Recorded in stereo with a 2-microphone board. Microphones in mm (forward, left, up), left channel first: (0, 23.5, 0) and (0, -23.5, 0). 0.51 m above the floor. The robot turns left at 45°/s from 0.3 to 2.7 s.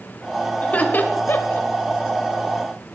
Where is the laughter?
25° left (ahead or behind), 1.8 m; by 1.7 s 65° left (ahead or behind), 1.8 m.